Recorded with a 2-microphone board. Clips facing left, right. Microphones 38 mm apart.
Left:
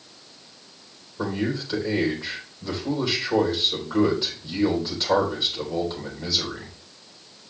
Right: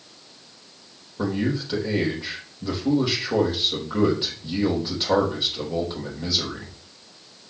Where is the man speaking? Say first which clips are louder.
Right 2 dB; 10° right (ahead or behind), 4 m.